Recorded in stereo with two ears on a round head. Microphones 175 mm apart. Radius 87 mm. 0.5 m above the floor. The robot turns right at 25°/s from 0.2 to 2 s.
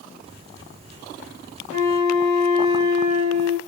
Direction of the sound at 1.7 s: 45° right (ahead or behind).